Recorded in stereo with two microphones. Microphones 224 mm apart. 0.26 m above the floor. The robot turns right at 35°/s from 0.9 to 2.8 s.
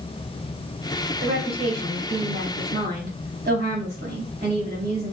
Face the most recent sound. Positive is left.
turn(degrees=-70)